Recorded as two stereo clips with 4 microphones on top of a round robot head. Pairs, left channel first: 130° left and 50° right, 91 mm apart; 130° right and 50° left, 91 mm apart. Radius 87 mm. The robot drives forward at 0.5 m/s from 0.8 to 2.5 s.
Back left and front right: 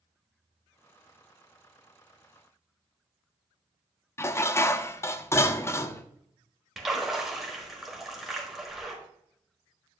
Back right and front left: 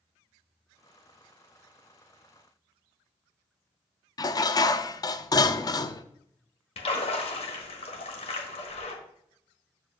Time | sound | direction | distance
4.2 | dishes clattering | 170° right | 0.5 m
6.8 | a splash | 135° right | 1.4 m